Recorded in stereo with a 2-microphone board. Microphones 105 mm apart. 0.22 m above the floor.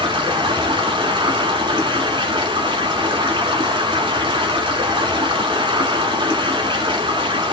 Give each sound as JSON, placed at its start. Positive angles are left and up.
{"t": 0.0, "sound": "running water", "side_deg": -55, "distance_m": 1.4}